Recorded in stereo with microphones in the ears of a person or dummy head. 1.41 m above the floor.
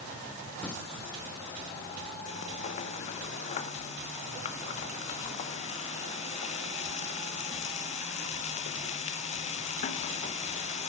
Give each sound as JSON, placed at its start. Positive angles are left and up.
{"t": 0.6, "sound": "singing", "side_deg": 10, "distance_m": 1.3}
{"t": 2.3, "sound": "frying", "side_deg": 45, "distance_m": 0.9}